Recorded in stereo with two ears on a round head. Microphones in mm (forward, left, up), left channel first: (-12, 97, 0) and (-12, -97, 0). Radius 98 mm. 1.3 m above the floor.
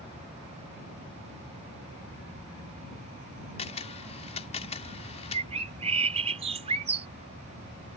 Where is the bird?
30° right (ahead or behind).